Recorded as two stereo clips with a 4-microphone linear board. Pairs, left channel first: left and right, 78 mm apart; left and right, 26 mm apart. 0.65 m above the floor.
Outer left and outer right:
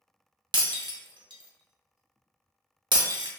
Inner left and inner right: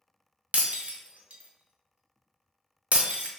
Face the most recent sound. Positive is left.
turn(degrees=-80)